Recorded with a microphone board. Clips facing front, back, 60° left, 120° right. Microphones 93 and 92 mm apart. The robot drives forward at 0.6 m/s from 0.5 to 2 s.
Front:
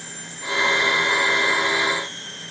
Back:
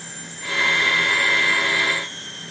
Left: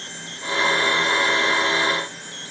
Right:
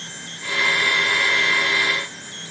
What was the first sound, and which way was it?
Only background noise.